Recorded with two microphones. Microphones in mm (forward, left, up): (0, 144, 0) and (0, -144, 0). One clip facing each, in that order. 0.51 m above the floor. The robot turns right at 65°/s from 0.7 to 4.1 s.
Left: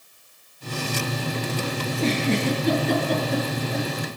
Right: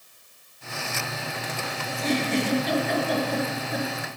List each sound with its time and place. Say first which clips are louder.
1.9 s a giggle: left 2 dB; 70° left (ahead or behind), 7 m; by 3.9 s 20° right (ahead or behind), 7 m